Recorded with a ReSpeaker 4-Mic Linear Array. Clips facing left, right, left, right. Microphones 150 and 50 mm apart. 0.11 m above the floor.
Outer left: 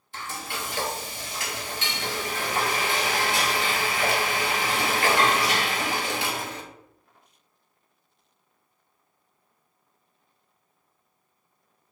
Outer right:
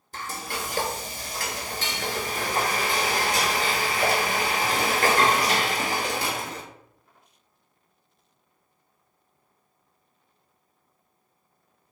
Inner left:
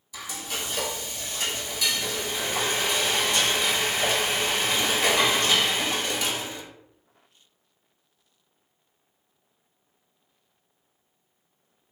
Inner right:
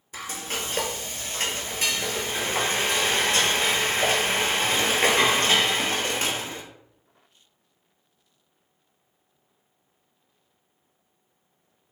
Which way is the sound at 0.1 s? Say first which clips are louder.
Outer right 1 dB, inner right 2 dB; 45° right (ahead or behind).